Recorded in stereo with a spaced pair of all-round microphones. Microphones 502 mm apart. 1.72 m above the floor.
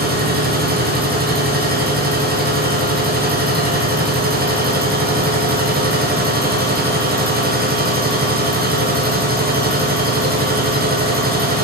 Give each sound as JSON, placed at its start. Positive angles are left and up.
{"t": 0.0, "sound": "a machine running", "side_deg": -20, "distance_m": 0.9}